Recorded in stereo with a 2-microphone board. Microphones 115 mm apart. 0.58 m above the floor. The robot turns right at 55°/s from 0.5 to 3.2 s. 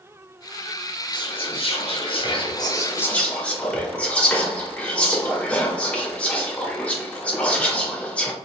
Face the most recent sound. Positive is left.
turn(degrees=165)